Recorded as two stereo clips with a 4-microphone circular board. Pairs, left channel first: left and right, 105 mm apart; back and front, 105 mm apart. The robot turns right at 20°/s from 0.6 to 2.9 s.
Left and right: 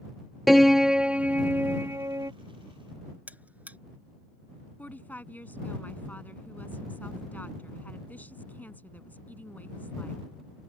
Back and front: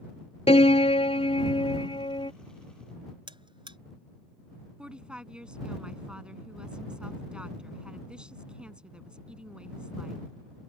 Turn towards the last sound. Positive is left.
turn(degrees=60)